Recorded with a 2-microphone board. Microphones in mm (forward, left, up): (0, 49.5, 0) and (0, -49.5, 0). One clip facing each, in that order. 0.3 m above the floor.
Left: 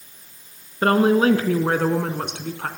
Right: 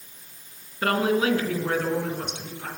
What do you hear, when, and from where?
0.8 s a woman speaking: 30° left (ahead or behind), 3 m; by 2.7 s 65° left (ahead or behind), 2.5 m